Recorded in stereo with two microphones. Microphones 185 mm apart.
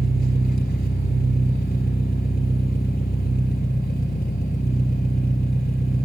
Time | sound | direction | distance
0.0 | an engine running | 55° left (ahead or behind) | 1.7 m